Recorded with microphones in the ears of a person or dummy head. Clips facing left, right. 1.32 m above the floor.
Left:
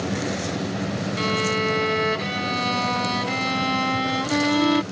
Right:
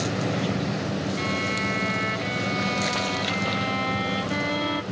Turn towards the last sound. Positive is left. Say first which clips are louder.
# left 4 dB
turn(degrees=65)  # may be behind; listen again after turning